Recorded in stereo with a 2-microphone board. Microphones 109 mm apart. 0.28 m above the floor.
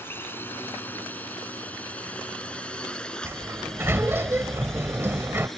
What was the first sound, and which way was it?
A drone, 20° left (ahead or behind).